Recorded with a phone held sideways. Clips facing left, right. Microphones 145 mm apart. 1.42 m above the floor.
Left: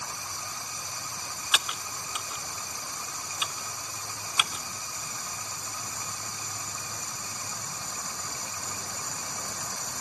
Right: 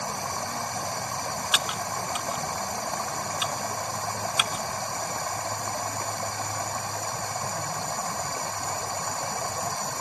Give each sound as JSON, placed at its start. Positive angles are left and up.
{"t": 0.0, "sound": "running water", "side_deg": -60}
{"t": 1.5, "sound": "typing on a keyboard", "side_deg": 0}